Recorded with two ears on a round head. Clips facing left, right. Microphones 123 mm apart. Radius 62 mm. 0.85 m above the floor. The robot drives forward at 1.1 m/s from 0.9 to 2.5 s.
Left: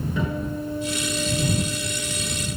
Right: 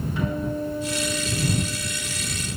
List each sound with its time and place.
0.2 s a guitar: 75° left (ahead or behind), 7 m; by 2.4 s 90° left, 6.5 m